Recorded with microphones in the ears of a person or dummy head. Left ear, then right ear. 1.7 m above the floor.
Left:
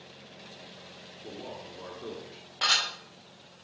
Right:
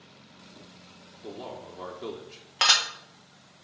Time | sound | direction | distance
1.2 | a man speaking | 80° right | 1.6 m
2.6 | dishes clattering | 40° right (ahead or behind) | 1.4 m